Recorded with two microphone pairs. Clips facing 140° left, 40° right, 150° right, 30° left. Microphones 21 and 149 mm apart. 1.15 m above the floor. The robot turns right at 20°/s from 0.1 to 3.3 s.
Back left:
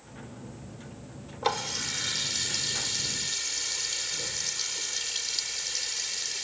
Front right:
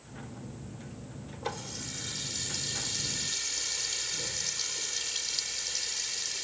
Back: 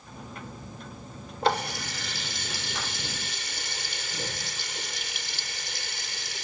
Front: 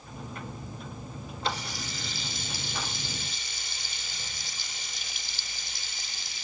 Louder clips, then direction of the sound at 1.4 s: Back left 9 dB, back 8 dB; straight behind.